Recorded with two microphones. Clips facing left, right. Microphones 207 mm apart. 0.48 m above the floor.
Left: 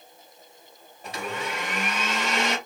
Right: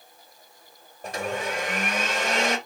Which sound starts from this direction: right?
A blender, at 1.0 s.